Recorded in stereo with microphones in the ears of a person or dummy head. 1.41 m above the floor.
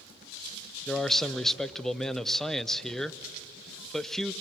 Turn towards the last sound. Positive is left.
turn(degrees=5)  # may be behind; listen again after turning